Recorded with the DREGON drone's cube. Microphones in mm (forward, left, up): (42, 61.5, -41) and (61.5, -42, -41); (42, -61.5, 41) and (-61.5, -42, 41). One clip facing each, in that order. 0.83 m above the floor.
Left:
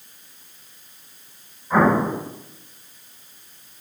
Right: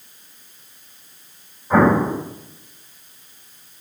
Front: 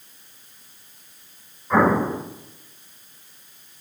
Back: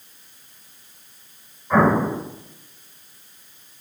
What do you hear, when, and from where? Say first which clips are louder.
1.7 s an explosion: right 2 dB, back 1 dB; 95° right, 4.5 m